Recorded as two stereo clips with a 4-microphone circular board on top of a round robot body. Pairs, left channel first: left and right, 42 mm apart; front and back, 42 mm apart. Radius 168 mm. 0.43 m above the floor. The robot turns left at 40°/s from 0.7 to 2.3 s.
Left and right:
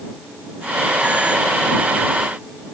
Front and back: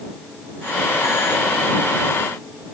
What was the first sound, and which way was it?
Only background noise.